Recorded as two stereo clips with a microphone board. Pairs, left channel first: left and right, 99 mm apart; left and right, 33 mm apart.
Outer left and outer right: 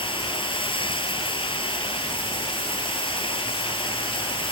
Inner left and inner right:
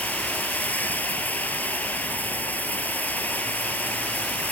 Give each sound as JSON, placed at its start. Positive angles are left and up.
{"t": 0.0, "sound": "running water", "side_deg": 60}